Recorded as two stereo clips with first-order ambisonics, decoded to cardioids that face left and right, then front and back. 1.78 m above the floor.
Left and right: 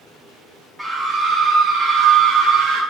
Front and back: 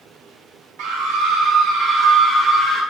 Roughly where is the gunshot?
I don't hear a gunshot.